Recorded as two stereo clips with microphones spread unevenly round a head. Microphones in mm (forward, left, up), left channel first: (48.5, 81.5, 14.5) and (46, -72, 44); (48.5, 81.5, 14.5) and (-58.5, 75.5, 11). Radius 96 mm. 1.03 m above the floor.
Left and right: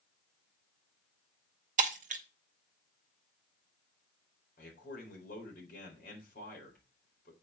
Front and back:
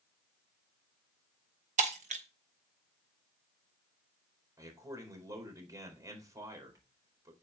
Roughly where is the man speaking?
Behind left.